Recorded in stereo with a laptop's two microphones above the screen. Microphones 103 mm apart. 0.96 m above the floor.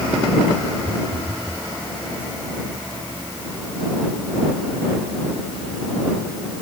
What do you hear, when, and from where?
0.8 s a phone buzzing: 55° right (ahead or behind)